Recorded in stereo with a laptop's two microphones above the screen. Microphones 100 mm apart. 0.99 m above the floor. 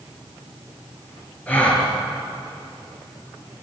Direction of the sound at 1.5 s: 15° left (ahead or behind).